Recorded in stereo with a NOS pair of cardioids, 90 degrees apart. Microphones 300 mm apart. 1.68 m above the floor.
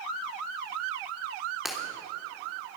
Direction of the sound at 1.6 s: Straight ahead.